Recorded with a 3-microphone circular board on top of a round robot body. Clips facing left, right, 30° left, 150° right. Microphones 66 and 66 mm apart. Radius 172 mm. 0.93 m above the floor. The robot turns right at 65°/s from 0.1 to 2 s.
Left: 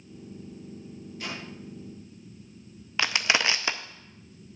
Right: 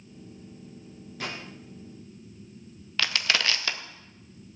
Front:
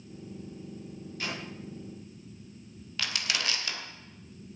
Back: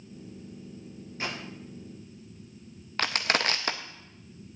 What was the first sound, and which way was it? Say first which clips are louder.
A gunshot: right 2 dB, back 2 dB; 95° right.